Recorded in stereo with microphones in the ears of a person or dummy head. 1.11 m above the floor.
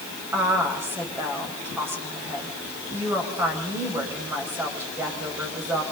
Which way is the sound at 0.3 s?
15° right (ahead or behind).